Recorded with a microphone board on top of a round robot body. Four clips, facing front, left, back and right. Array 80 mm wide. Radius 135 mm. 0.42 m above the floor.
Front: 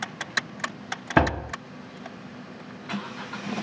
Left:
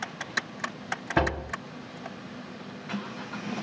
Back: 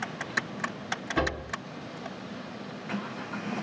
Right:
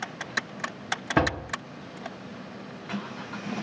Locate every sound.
1.2 s a door slam: 10° right, 1.1 m